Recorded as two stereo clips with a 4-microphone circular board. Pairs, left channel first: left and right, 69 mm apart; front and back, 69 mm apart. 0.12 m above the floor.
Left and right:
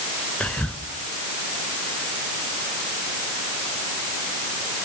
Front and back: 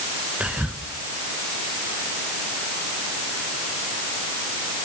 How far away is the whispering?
About 1.1 m.